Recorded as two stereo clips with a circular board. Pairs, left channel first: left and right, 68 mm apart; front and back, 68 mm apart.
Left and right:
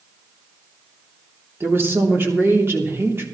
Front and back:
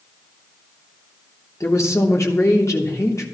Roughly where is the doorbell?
I don't hear a doorbell.